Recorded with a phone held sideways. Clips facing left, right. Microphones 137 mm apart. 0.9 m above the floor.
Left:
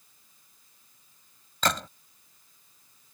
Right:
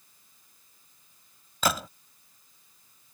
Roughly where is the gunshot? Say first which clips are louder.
Right 1 dB; centre.